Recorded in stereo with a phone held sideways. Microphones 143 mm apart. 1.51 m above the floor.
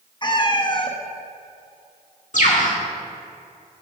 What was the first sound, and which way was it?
A cat meowing, 30° left (ahead or behind).